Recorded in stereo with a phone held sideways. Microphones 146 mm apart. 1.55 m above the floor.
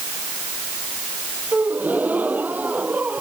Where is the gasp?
10° right (ahead or behind).